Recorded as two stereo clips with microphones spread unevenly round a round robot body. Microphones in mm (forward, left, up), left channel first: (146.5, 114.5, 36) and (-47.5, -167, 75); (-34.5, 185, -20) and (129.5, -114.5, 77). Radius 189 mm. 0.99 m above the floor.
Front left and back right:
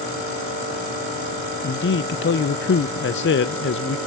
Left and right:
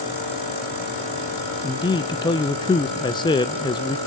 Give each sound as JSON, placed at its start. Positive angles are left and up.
{"t": 1.6, "sound": "a man speaking", "azimuth_deg": 70, "distance_m": 1.0}